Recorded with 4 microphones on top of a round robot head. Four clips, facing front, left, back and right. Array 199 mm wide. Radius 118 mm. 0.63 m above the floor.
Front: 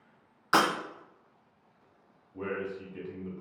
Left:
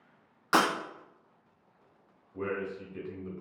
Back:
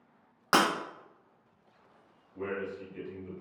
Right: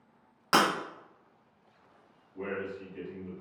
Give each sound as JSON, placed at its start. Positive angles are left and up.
{"t": 0.5, "sound": "breaking glass", "azimuth_deg": -155, "distance_m": 0.9}
{"t": 2.3, "sound": "a man speaking", "azimuth_deg": 50, "distance_m": 0.9}